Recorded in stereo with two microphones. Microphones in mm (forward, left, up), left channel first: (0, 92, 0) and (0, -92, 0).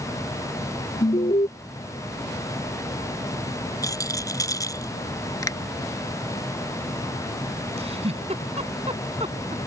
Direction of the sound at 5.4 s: 20° left (ahead or behind).